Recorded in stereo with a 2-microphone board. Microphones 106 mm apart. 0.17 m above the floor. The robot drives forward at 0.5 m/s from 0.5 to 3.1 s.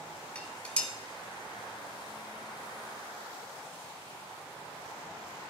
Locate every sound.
0.3 s dishes clattering: 10° left (ahead or behind), 1.0 m